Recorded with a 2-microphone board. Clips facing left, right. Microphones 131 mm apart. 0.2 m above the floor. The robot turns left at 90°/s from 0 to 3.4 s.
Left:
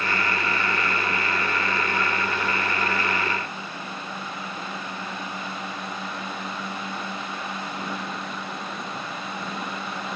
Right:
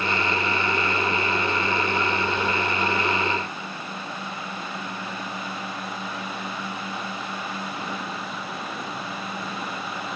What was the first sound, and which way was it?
Only background noise.